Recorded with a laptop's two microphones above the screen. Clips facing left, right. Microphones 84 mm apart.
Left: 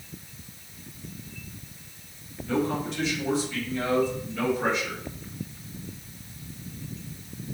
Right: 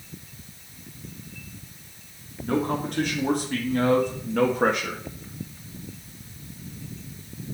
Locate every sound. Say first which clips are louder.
2.4 s a man speaking: right 2 dB; 50° right (ahead or behind), 2.5 m; by 5.0 s 65° right (ahead or behind), 1.4 m